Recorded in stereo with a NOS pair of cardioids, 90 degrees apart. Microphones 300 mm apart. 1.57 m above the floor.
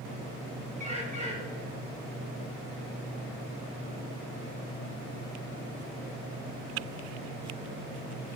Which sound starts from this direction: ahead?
A bird, at 0.8 s.